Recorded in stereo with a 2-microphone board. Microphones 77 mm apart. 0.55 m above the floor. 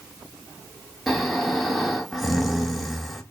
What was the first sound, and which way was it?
Snoring, centre (ahead or behind).